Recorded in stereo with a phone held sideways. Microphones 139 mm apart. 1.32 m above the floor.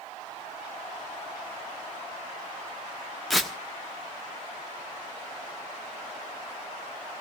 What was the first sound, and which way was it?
Tearing paper, centre (ahead or behind).